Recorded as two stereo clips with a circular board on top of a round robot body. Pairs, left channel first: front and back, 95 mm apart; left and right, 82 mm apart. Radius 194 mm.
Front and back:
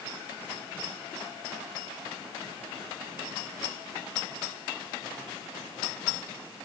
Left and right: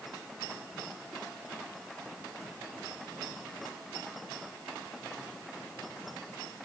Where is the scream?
No scream in this recording.